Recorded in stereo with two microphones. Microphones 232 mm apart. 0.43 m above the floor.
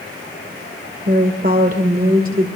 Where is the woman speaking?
40° right (ahead or behind), 1.9 m.